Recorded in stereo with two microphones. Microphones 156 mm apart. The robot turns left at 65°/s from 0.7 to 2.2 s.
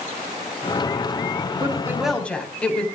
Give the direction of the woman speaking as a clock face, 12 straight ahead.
5 o'clock.